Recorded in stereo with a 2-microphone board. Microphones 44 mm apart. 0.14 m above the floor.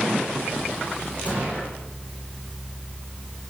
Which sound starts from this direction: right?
A gunshot, at 1.2 s.